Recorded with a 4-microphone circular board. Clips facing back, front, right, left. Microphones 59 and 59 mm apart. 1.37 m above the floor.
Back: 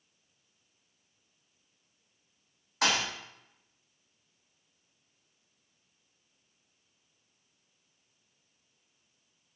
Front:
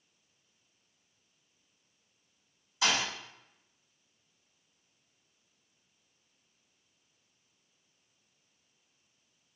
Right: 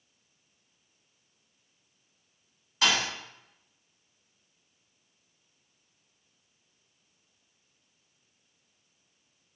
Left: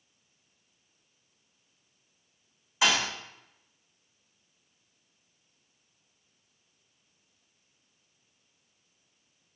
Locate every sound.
2.8 s a thud: 170° left, 1.2 m